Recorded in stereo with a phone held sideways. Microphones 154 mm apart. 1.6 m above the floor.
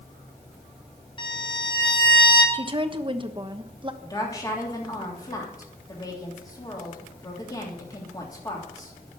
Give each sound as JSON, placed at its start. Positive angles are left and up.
{"t": 1.2, "sound": "a violin", "side_deg": 30, "distance_m": 3.5}
{"t": 2.5, "sound": "a woman speaking", "side_deg": -30, "distance_m": 1.2}
{"t": 4.0, "sound": "a woman speaking", "side_deg": 25, "distance_m": 3.0}